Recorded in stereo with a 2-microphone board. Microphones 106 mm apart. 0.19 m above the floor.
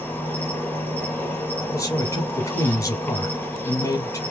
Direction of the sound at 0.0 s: 15° left (ahead or behind).